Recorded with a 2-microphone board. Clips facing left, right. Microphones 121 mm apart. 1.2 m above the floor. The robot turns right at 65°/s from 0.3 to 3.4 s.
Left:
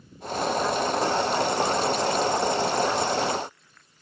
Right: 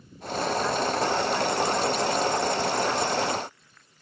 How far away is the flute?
No flute in this recording.